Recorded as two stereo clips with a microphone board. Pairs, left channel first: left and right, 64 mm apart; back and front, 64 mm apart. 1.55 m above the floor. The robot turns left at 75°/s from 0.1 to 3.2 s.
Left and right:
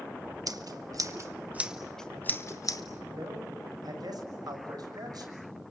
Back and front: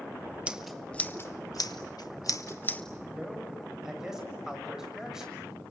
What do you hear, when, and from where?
0.5 s scissors: 75° right, 1.3 m; by 2.8 s 110° left, 1.3 m
3.1 s a man speaking: 75° right, 6.5 m; by 5.4 s 85° right, 6.5 m